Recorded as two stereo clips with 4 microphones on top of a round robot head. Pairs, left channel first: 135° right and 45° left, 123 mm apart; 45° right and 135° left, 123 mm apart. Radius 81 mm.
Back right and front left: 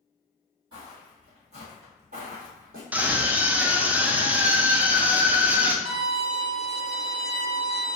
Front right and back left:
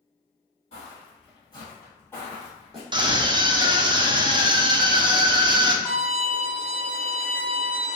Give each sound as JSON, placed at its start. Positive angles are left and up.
{"t": 0.7, "sound": "footsteps", "azimuth_deg": -10, "distance_m": 1.6}
{"t": 2.9, "sound": "a scream", "azimuth_deg": 115, "distance_m": 0.6}
{"t": 5.8, "sound": "a violin", "azimuth_deg": 35, "distance_m": 1.1}